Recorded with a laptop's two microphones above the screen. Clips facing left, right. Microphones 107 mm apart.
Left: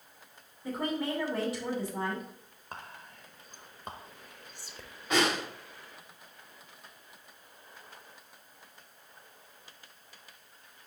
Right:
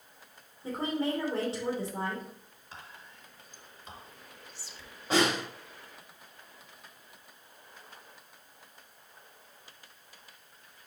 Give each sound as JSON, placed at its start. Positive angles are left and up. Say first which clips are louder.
{"t": 0.6, "sound": "a woman speaking", "louder": "right 1 dB", "side_deg": -30, "distance_m": 2.5}
{"t": 2.7, "sound": "whispering", "louder": "left 4 dB", "side_deg": 50, "distance_m": 0.9}
{"t": 5.1, "sound": "a snare drum", "louder": "right 1 dB", "side_deg": -30, "distance_m": 3.5}